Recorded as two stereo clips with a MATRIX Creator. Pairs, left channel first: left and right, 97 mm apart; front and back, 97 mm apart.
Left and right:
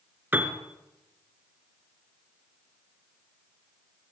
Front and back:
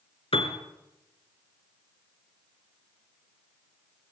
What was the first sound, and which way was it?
A piano, 20° right.